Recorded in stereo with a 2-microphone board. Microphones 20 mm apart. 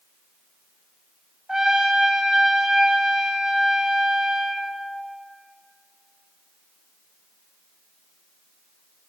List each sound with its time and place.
1.5 s a trumpet: 45° right (ahead or behind), 0.9 m